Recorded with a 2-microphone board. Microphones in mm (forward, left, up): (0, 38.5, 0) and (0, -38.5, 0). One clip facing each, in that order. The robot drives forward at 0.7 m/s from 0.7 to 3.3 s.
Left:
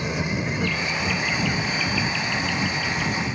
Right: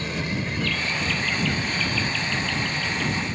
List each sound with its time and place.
0.0 s an insect: 15° left (ahead or behind); by 3.4 s 5° left (ahead or behind)